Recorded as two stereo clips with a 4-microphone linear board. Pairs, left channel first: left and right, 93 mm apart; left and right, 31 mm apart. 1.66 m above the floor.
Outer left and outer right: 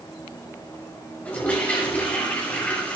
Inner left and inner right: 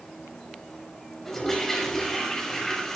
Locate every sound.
1.2 s a toilet flushing: 15° left (ahead or behind), 6 m